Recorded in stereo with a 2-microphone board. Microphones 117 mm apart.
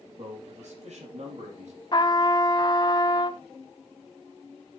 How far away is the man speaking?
About 6 m.